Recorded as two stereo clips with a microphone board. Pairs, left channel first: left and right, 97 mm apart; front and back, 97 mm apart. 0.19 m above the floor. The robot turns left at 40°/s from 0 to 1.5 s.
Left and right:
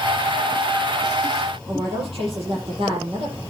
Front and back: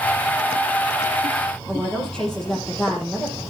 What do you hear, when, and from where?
1.7 s a woman speaking: 80° right, 6.5 m